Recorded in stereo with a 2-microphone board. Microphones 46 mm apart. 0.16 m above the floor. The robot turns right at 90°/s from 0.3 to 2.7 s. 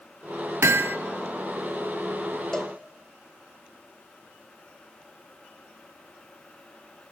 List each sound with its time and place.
0.6 s hammering: 75° right, 0.7 m; by 1.0 s 45° right, 0.7 m
2.5 s a cowbell: 15° left (ahead or behind), 1.3 m; by 2.8 s centre (ahead or behind), 1.3 m